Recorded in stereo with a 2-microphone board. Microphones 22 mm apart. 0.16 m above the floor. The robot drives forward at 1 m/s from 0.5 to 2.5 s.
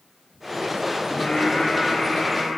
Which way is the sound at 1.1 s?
60° left (ahead or behind).